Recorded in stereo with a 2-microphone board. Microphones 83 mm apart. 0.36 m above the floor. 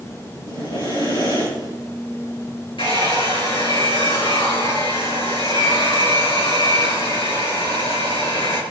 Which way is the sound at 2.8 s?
80° left.